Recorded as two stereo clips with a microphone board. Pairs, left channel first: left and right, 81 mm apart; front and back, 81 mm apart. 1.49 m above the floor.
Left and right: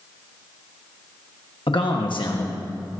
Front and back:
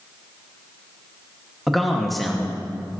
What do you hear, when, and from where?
1.7 s a man speaking: 90° left, 1.4 m